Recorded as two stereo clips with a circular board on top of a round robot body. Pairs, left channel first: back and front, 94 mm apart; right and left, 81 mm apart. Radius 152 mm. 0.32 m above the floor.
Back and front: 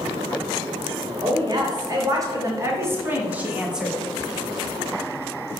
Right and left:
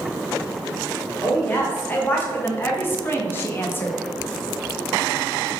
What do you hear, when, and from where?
1.2 s a woman speaking: 25° right, 2.5 m; by 4.0 s 85° right, 1.5 m